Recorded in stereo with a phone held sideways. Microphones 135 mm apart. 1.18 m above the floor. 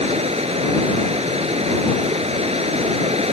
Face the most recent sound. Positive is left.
turn(degrees=-55)  # may be behind; listen again after turning